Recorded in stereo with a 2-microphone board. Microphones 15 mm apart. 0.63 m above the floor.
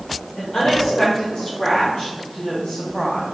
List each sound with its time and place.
0.3 s a woman speaking: 55° left (ahead or behind), 2.0 m; by 3.2 s 30° left (ahead or behind), 3 m